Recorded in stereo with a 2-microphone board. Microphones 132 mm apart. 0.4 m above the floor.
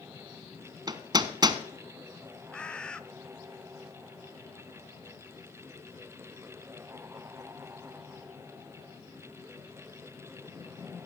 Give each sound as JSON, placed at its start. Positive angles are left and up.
{"t": 0.9, "sound": "hammering", "side_deg": -30, "distance_m": 0.8}
{"t": 2.5, "sound": "a bird", "side_deg": 10, "distance_m": 0.5}